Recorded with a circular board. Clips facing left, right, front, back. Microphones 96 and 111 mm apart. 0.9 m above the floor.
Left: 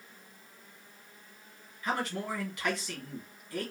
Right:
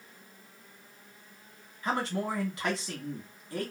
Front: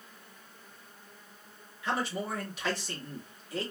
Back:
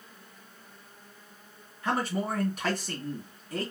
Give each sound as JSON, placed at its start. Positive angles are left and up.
{"t": 1.8, "sound": "a man speaking", "azimuth_deg": -145, "distance_m": 1.6}